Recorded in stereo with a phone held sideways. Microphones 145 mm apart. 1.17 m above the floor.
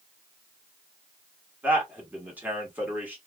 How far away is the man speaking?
About 1.3 m.